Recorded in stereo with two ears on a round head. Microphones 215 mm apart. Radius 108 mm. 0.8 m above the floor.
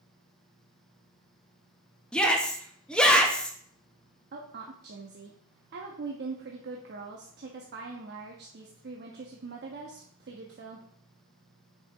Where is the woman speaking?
45° right (ahead or behind), 0.8 m.